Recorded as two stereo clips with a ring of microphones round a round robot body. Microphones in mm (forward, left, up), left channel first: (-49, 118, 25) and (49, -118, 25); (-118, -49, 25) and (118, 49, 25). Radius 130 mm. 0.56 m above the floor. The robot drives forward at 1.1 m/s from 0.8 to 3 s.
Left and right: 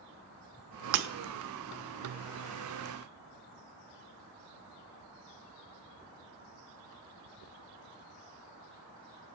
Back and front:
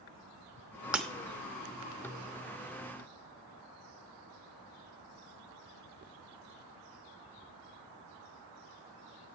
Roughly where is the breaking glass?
Ahead right.